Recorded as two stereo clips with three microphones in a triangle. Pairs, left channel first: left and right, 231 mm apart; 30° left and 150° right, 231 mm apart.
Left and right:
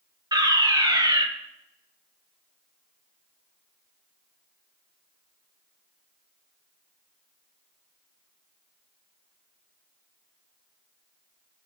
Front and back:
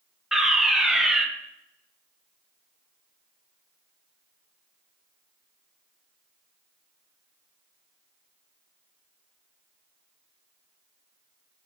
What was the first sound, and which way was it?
A fire alarm, 65° right.